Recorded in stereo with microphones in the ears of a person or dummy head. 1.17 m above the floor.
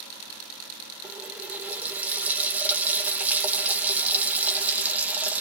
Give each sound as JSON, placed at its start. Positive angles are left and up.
{"t": 1.0, "sound": "a running tap", "side_deg": -10, "distance_m": 2.5}